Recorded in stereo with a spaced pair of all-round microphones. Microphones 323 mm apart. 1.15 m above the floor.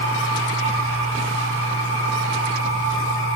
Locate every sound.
0.0 s a machine running: 45° left (ahead or behind), 4 m